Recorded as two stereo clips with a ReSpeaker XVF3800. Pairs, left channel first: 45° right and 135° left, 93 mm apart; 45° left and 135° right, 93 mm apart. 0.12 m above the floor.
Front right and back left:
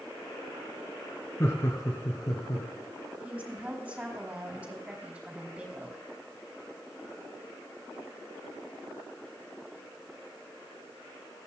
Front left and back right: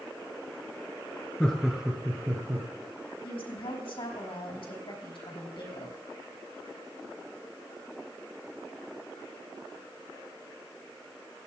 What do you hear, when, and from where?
1.4 s laughter: 25° right, 1.7 m; by 2.7 s 80° right, 2.5 m
3.2 s a woman speaking: 55° left, 5 m